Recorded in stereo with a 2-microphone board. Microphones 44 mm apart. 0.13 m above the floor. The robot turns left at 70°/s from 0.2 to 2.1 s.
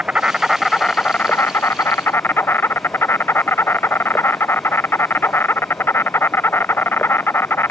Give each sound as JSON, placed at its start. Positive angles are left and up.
{"t": 0.0, "sound": "an insect", "azimuth_deg": -160}